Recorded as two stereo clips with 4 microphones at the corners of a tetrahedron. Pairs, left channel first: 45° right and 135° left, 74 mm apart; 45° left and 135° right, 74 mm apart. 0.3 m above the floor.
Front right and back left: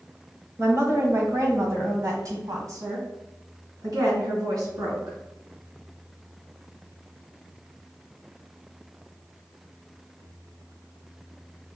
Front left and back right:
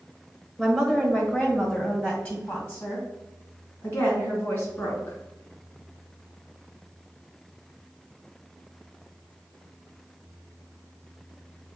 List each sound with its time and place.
0.6 s a woman speaking: 130° left, 1.2 m; by 5.2 s 95° left, 3.5 m